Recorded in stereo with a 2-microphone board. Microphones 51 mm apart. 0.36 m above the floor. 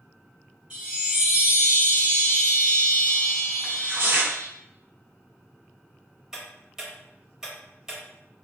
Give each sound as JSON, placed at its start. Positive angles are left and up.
{"t": 0.7, "sound": "a chime", "side_deg": -20, "distance_m": 1.5}
{"t": 3.6, "sound": "tearing paper", "side_deg": -45, "distance_m": 1.9}
{"t": 6.3, "sound": "ticking", "side_deg": -10, "distance_m": 0.9}